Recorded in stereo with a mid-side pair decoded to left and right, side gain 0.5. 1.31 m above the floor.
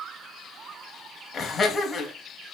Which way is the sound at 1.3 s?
30° left.